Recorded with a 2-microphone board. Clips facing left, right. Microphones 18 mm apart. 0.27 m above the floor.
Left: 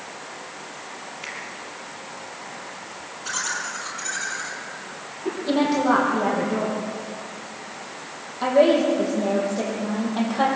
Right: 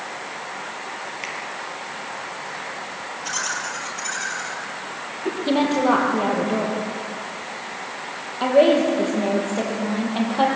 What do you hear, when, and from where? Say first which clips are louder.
1.2 s a finger snap: right 2 dB; 40° right (ahead or behind), 6 m
3.2 s laughter: right 1 dB; 40° right (ahead or behind), 7.5 m
5.5 s a woman speaking: right 1 dB; 70° right (ahead or behind), 9 m